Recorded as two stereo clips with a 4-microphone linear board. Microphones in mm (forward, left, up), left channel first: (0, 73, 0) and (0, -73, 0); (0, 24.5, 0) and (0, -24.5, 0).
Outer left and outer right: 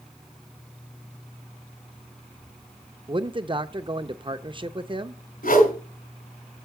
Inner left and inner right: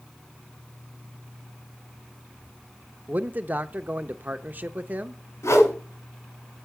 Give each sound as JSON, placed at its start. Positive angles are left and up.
{"t": 3.1, "sound": "a man speaking", "side_deg": -35, "distance_m": 0.6}
{"t": 5.4, "sound": "a whoosh", "side_deg": 75, "distance_m": 2.0}